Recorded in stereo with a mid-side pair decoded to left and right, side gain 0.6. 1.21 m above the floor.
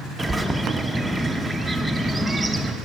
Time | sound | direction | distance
0.2 | a bird | 10° right | 0.8 m